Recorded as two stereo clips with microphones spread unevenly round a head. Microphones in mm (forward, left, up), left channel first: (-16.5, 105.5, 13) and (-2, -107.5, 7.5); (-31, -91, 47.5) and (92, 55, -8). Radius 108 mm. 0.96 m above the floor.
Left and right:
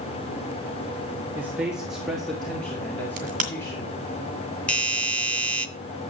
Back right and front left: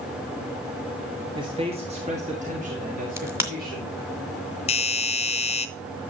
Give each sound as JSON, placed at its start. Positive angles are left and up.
{"t": 1.4, "sound": "a man speaking", "azimuth_deg": -5, "distance_m": 1.3}
{"t": 3.2, "sound": "a crack", "azimuth_deg": -30, "distance_m": 2.5}
{"t": 4.7, "sound": "a doorbell", "azimuth_deg": 175, "distance_m": 0.7}